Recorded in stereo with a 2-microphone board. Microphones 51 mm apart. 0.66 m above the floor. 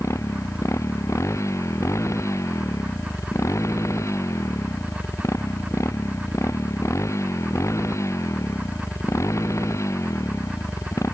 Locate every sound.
0.0 s a motorcycle: 70° left (ahead or behind)